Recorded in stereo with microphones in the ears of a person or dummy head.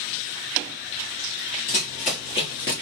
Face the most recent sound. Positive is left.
turn(degrees=20)  # may be behind; listen again after turning